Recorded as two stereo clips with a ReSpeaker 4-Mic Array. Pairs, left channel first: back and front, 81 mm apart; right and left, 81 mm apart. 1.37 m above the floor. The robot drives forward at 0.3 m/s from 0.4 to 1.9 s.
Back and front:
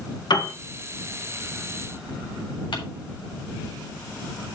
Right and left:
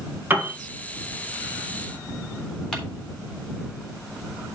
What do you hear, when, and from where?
0.3 s a piano: 155° left, 1.5 m
2.7 s crumpling: 170° right, 3.5 m